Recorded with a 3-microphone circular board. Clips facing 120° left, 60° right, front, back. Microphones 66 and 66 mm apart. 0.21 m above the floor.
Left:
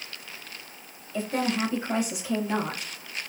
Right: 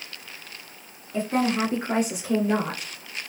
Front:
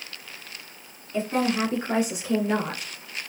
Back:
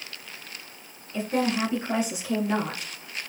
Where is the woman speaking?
55° right, 1.6 m.